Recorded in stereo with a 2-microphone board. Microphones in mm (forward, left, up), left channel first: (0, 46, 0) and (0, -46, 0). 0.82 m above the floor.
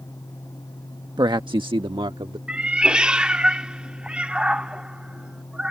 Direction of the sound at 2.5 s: 10° right (ahead or behind).